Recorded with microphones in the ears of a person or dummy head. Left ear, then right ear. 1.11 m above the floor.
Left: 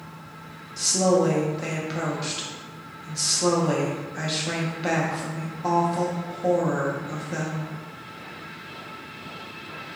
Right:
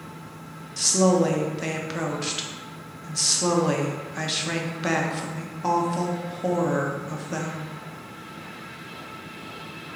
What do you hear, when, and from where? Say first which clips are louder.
0.8 s a woman speaking: even; 10° right (ahead or behind), 0.5 m